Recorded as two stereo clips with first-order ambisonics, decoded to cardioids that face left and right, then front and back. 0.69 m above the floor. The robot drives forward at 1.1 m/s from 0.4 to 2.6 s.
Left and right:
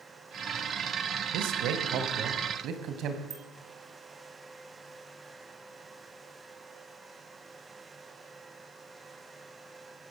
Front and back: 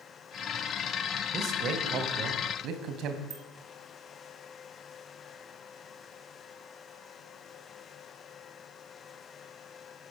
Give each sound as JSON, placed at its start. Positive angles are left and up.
{"t": 1.3, "sound": "a man speaking", "azimuth_deg": -120, "distance_m": 3.0}
{"t": 3.3, "sound": "a bicycle bell", "azimuth_deg": -135, "distance_m": 2.0}